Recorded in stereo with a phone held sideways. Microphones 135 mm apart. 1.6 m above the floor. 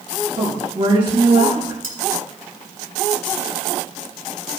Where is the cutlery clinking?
80° right, 4 m.